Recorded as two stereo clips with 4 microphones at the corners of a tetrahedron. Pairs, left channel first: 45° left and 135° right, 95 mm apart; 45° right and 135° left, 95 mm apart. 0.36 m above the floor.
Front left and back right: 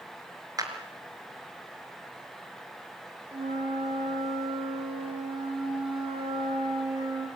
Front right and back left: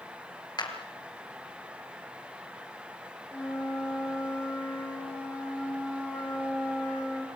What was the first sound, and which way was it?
A clap, 85° right.